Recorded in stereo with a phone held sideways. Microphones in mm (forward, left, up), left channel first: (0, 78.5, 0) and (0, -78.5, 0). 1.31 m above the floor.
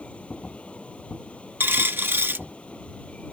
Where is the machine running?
10° left (ahead or behind).